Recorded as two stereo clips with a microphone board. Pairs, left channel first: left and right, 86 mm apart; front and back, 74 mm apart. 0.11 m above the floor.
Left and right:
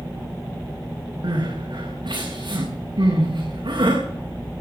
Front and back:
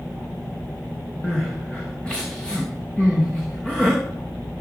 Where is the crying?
80° right, 6 m.